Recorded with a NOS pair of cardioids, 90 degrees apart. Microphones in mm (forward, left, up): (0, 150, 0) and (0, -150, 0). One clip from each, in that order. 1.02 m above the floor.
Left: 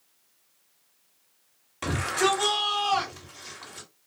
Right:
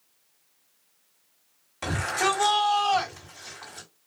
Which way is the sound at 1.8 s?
5° left.